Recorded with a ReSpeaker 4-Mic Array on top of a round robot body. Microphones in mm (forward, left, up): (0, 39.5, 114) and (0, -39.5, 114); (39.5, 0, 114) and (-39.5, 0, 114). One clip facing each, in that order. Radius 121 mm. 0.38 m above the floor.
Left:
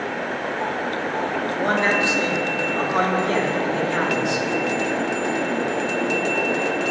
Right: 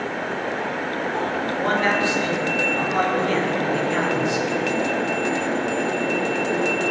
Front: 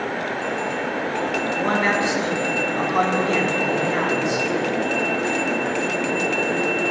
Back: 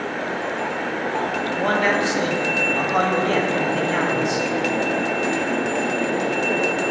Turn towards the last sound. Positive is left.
turn(degrees=160)